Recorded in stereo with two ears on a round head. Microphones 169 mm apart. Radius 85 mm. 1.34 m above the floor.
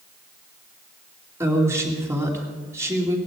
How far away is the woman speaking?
About 3 m.